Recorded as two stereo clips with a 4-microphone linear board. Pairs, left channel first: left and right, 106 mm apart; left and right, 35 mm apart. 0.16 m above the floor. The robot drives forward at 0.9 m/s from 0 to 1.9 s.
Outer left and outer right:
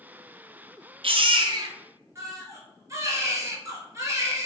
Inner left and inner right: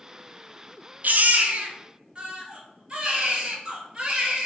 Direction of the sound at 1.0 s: 60° right (ahead or behind).